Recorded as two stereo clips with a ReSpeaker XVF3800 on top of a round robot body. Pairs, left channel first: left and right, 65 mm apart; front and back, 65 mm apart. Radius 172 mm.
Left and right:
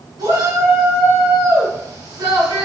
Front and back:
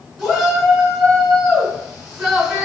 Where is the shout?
95° right, 5 m.